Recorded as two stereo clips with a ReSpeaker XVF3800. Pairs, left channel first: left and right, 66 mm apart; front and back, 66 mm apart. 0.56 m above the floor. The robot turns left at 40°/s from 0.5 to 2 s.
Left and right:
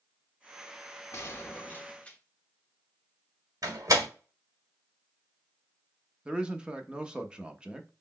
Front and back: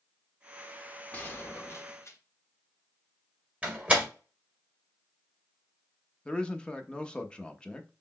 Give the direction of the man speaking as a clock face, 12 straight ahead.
1 o'clock.